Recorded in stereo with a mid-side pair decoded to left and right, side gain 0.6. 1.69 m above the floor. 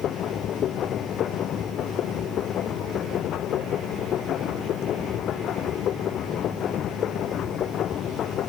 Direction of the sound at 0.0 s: 55° left.